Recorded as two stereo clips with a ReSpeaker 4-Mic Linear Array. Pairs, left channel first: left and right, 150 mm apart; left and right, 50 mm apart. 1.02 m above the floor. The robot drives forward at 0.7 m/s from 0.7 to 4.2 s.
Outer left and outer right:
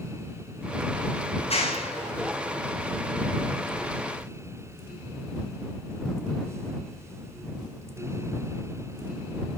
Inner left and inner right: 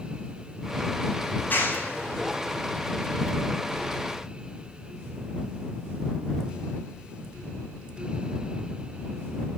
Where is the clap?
40° left (ahead or behind), 8 m; by 2.9 s 45° left (ahead or behind), 7 m.